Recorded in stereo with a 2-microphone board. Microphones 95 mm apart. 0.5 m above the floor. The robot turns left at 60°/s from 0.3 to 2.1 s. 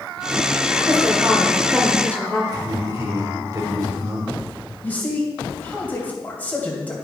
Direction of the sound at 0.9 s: 125° right.